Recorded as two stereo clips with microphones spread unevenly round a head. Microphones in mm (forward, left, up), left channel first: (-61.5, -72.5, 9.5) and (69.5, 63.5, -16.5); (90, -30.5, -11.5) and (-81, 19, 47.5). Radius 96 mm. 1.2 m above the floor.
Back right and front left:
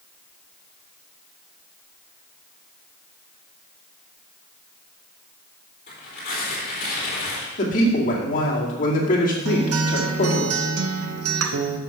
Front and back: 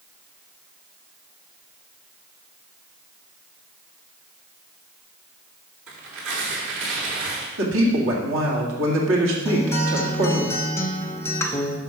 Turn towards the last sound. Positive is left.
turn(degrees=60)